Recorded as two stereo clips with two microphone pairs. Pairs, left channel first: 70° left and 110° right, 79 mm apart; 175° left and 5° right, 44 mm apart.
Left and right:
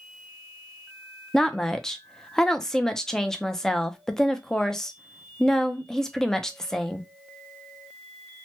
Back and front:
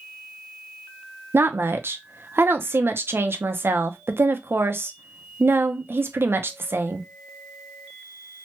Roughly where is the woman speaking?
Ahead.